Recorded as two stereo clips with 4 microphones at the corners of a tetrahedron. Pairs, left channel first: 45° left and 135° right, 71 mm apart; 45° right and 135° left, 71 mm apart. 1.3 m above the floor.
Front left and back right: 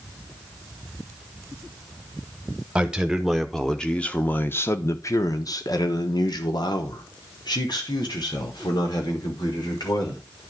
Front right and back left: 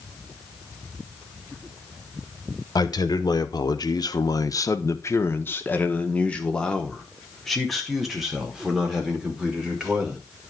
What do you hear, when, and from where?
2.8 s a man speaking: 60° right, 1.3 m; by 10.2 s 55° left, 3 m